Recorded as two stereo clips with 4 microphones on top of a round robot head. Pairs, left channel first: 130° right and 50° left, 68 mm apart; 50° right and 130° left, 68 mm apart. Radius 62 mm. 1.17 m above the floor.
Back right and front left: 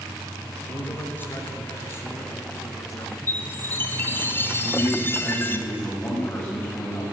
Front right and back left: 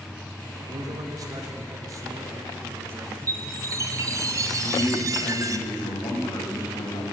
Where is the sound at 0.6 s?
160° left, 4 m; by 3.2 s 165° right, 2 m.